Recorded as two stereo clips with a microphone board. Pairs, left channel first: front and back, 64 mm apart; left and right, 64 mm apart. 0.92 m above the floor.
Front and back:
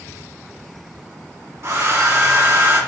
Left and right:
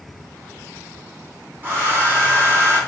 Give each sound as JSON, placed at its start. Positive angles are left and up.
{"t": 1.6, "sound": "a hair dryer", "azimuth_deg": -150, "distance_m": 3.0}